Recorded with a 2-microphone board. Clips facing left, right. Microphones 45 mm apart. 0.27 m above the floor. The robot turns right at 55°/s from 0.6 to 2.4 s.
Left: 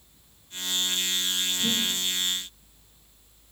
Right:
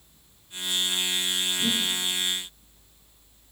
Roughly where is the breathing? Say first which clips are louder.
Right 1 dB; right.